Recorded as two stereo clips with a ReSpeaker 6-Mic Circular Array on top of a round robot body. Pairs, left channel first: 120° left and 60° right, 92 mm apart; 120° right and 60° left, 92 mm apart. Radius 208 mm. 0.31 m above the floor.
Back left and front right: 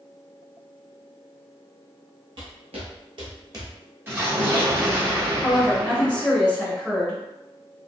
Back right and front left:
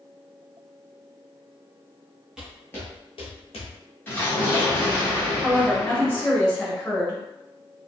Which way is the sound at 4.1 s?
80° right.